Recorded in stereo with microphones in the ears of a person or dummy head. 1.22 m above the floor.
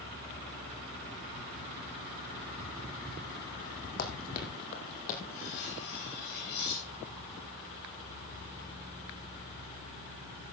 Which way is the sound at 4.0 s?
50° left (ahead or behind).